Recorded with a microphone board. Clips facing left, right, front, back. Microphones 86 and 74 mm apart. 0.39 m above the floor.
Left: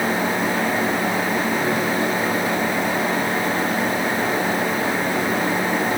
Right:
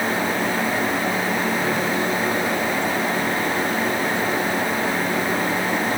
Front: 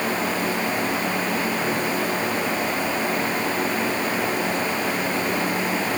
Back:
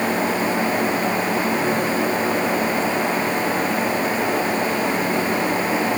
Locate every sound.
Only background noise.